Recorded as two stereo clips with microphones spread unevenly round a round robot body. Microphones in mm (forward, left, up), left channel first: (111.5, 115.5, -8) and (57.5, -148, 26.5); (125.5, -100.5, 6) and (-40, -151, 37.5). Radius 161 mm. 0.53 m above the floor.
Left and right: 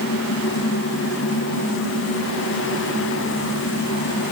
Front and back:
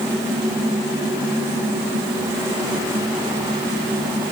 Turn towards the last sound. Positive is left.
No sound to turn to.